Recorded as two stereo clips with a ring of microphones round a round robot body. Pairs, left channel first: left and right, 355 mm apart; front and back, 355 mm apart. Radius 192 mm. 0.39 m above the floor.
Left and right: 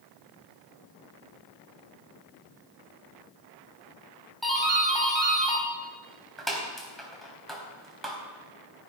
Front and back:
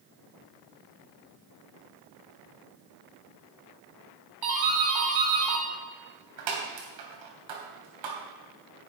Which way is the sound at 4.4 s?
Straight behind.